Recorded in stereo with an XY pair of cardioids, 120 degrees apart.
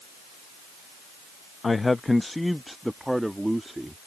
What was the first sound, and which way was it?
A man speaking, 25° left.